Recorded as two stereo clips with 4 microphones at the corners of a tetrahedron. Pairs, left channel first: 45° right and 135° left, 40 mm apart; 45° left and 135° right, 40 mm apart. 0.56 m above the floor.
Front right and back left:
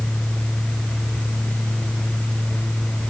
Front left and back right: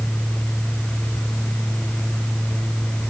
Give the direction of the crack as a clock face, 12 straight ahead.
No crack in this recording.